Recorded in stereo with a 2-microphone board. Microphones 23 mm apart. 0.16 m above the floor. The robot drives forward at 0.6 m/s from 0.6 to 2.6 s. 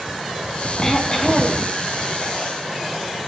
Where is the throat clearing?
25° left (ahead or behind), 8.5 m.